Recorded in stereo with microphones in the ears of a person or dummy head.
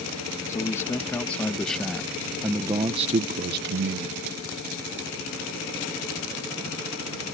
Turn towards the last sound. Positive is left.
turn(degrees=-75)  # may be behind; listen again after turning